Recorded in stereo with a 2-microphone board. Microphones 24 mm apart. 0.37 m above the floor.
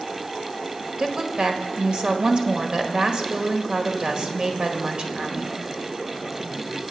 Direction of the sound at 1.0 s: 40° right (ahead or behind).